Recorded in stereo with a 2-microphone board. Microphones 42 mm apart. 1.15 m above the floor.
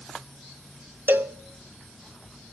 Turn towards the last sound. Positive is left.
turn(degrees=-55)  # may be behind; listen again after turning